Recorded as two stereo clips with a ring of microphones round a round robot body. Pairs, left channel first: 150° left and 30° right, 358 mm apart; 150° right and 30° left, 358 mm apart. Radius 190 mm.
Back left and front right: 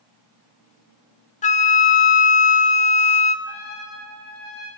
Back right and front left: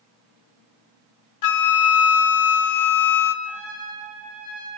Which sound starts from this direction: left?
A trumpet, at 3.5 s.